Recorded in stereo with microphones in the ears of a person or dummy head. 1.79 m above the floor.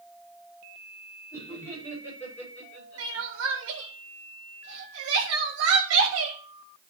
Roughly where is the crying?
Right.